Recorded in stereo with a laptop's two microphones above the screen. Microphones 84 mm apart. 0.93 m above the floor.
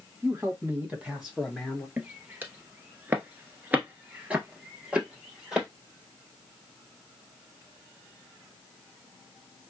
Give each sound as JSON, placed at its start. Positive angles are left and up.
{"t": 0.2, "sound": "a man speaking", "side_deg": -30, "distance_m": 1.4}
{"t": 2.0, "sound": "footsteps", "side_deg": -25, "distance_m": 1.1}